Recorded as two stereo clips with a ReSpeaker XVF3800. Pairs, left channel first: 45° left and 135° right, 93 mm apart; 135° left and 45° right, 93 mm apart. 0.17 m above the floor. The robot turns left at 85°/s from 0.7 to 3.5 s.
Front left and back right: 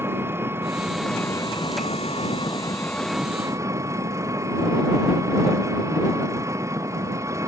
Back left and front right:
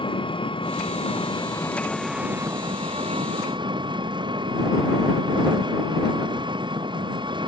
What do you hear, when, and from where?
0.0 s an engine running: 160° left; by 7.5 s 80° right